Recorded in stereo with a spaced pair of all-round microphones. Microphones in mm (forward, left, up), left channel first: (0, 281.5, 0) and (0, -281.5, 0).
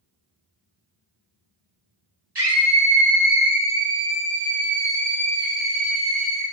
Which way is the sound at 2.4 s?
45° right (ahead or behind).